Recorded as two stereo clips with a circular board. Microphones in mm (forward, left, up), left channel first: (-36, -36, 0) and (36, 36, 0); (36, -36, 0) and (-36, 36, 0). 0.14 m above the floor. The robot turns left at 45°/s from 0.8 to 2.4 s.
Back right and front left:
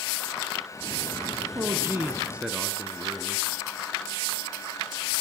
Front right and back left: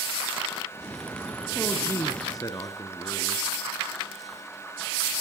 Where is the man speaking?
10° left, 1.3 m; by 3.5 s 30° right, 1.3 m.